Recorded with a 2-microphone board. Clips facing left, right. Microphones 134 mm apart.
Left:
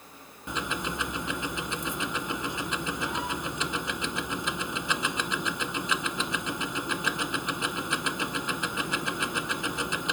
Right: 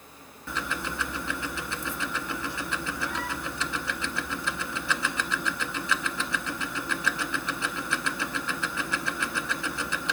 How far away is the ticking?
About 0.6 m.